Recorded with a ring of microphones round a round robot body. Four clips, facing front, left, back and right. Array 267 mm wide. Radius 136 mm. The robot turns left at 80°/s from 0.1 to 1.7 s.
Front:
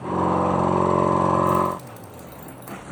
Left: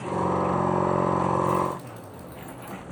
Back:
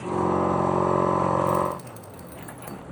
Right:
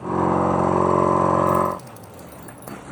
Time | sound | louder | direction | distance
1.5 | keys jangling | right 5 dB, front 3 dB | 95° right | 1.4 m